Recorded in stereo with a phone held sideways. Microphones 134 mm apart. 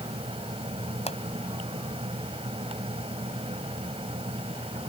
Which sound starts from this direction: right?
A fan, at 0.0 s.